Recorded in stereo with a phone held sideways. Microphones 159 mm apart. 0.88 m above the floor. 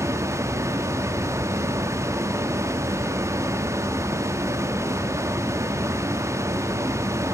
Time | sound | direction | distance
0.0 | a fan | 15° right (ahead or behind) | 1.0 m